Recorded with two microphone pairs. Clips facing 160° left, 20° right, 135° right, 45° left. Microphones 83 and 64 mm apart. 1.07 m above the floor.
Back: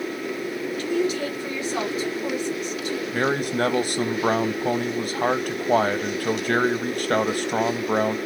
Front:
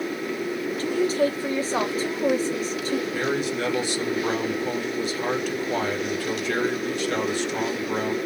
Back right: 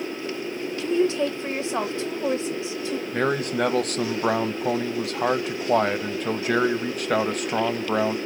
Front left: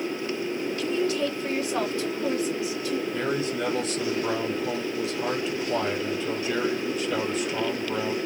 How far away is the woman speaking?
About 1.2 m.